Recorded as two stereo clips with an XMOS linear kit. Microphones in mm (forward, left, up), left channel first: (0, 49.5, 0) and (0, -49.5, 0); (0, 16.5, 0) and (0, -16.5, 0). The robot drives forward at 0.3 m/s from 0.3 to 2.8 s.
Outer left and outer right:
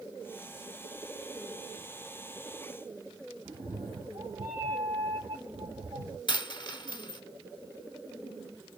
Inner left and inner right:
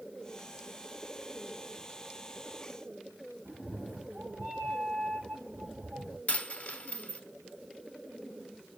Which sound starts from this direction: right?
A cat meowing, at 3.5 s.